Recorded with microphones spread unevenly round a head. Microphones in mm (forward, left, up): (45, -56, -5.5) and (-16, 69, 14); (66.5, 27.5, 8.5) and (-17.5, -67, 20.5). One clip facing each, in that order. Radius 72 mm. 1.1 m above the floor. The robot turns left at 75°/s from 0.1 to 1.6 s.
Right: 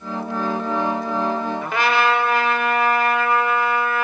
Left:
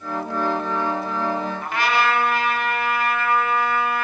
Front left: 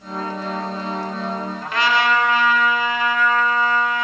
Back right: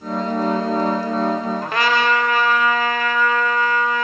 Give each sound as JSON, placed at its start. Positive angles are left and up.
{"t": 1.6, "sound": "a trumpet", "azimuth_deg": -90, "distance_m": 1.6}